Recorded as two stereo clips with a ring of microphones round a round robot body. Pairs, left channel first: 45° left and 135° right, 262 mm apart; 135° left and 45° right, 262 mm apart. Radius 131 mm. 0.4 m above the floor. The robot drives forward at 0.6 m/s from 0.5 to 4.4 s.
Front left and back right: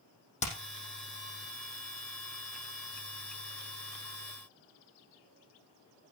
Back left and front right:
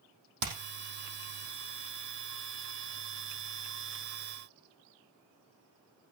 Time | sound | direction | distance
0.4 | hammering | 20° right | 5.5 m